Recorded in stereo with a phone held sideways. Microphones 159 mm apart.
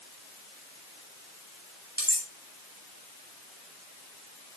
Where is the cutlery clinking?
80° right, 2.5 m.